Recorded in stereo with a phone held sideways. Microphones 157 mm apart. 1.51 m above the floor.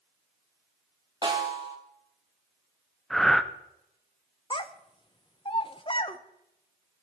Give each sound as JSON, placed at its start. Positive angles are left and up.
{"t": 1.2, "sound": "a snare drum", "side_deg": -30, "distance_m": 2.5}
{"t": 3.1, "sound": "breathing", "side_deg": 0, "distance_m": 0.6}
{"t": 4.5, "sound": "a child speaking", "side_deg": 35, "distance_m": 0.9}